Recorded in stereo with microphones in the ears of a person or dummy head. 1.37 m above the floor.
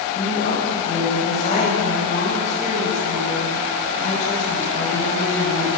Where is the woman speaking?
40° left (ahead or behind), 9.5 m.